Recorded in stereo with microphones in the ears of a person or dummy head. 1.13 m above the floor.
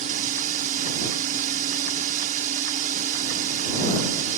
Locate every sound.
0.0 s a drone: 45° right (ahead or behind)